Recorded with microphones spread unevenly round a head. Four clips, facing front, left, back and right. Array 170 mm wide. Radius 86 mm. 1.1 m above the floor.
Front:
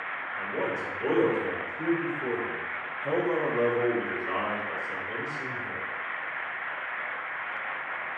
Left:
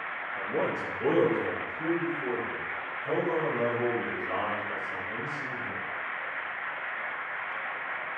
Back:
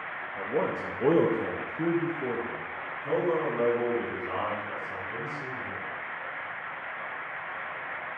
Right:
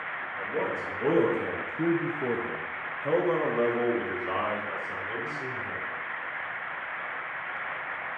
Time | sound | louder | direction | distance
0.4 | a man speaking | left 1 dB, back 3 dB | 165° left | 1.7 m